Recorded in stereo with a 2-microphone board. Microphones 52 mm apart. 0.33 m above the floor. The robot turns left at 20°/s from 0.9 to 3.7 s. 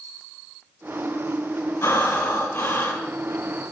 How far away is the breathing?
About 1.3 m.